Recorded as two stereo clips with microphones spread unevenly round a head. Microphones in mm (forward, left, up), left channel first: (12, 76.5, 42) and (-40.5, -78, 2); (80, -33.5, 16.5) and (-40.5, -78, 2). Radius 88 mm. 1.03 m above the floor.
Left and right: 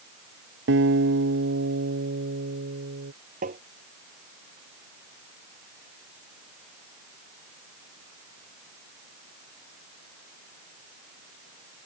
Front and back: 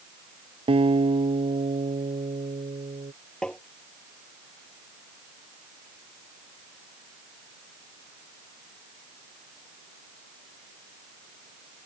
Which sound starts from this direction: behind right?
A guitar, at 0.7 s.